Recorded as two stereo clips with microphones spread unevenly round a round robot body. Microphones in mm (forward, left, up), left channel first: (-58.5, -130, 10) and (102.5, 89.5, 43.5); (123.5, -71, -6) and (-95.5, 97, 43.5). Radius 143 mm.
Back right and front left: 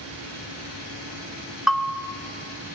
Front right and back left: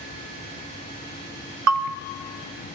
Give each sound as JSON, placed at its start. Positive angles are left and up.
{"t": 1.7, "sound": "a bell", "azimuth_deg": 150, "distance_m": 0.6}